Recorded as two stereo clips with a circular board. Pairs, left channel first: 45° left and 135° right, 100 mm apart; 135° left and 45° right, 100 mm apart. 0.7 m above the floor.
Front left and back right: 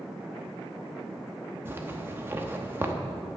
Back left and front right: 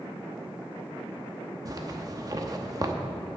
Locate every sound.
1.6 s a zipper: 75° right, 0.9 m